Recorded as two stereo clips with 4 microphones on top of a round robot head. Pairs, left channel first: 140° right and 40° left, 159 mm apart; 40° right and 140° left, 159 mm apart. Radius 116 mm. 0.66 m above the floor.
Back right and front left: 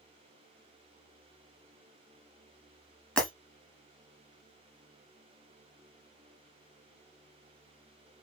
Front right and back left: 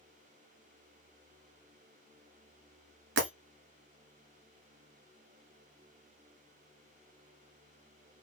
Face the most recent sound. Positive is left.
turn(degrees=135)